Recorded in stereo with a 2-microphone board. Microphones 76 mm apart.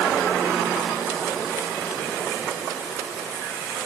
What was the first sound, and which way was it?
Only background noise.